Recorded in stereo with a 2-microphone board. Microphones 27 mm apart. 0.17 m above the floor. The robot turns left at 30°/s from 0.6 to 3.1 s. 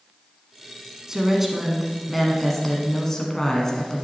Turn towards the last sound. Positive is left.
turn(degrees=155)